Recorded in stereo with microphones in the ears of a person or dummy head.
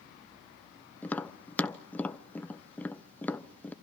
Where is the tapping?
5° left (ahead or behind), 0.9 m.